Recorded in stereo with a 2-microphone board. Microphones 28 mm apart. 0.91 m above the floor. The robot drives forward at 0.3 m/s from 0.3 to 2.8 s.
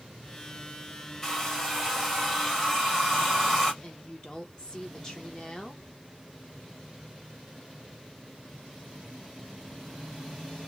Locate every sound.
1.2 s a hair dryer: 15° left (ahead or behind), 1.4 m; by 3.7 s 10° left (ahead or behind), 1.8 m
3.8 s a woman speaking: 30° left (ahead or behind), 1.0 m